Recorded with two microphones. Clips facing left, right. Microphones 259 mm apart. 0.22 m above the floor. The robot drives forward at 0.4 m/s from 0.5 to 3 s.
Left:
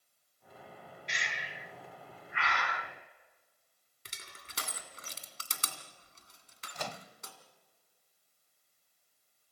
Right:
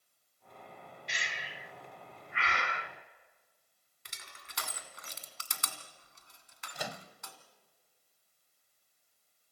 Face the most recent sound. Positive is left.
turn(degrees=-10)  # may be behind; listen again after turning